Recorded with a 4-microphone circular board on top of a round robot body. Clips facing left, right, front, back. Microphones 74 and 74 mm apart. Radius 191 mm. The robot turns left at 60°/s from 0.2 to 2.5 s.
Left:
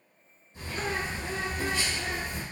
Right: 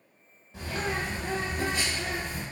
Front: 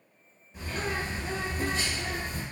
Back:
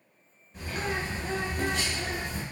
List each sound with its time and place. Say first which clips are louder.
0.5 s a bird: right 1 dB, even; 90° right, 0.6 m; by 2.4 s 160° left, 0.6 m